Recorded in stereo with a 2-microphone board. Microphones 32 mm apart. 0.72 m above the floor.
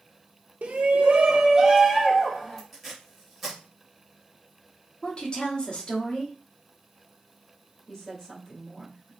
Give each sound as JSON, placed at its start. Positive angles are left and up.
{"t": 0.6, "sound": "a shout", "side_deg": -60, "distance_m": 1.1}
{"t": 2.7, "sound": "tape being pulled", "side_deg": -5, "distance_m": 2.5}
{"t": 5.0, "sound": "a woman speaking", "side_deg": 35, "distance_m": 1.7}
{"t": 7.9, "sound": "a woman speaking", "side_deg": 20, "distance_m": 2.5}